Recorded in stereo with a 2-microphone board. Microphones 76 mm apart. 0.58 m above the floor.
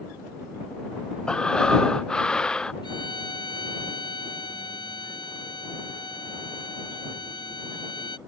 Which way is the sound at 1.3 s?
10° left (ahead or behind).